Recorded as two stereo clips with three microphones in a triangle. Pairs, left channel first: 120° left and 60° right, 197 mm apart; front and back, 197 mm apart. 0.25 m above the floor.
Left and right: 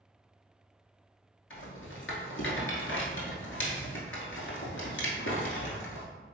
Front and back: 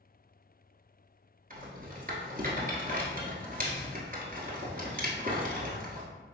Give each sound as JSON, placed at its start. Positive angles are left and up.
{"t": 1.5, "sound": "a rattle", "azimuth_deg": 135, "distance_m": 0.9}